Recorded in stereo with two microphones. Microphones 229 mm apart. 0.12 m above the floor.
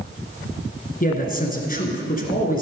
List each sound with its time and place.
1.0 s a man speaking: 40° left (ahead or behind), 1.6 m